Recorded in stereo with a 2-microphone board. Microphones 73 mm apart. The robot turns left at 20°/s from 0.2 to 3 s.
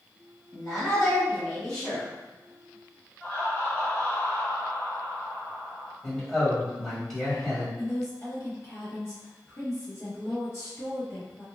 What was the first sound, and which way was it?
A woman speaking, centre (ahead or behind).